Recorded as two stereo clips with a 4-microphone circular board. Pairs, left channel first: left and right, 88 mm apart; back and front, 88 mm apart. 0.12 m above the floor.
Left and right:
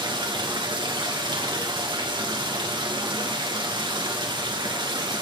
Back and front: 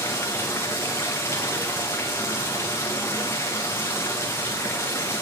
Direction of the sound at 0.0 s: 120° right.